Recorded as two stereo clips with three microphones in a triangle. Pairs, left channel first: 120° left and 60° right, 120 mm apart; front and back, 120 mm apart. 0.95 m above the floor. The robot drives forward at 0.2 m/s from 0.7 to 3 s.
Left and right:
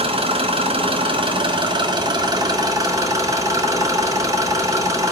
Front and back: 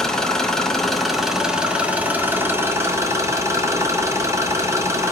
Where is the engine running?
85° right, 0.9 m; by 5.1 s 115° right, 1.0 m.